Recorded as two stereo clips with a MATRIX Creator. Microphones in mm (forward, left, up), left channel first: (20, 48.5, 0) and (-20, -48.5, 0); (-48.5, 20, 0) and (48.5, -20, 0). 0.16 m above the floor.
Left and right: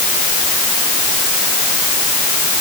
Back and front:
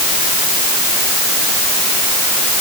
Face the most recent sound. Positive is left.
No sound to turn to.